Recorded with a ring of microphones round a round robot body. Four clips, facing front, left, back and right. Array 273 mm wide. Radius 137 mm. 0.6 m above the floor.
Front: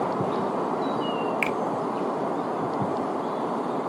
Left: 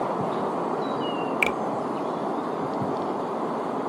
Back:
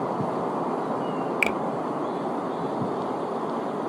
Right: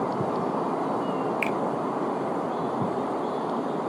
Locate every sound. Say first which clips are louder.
1.4 s a finger snap: left 1 dB, back 1 dB; 130° left, 0.5 m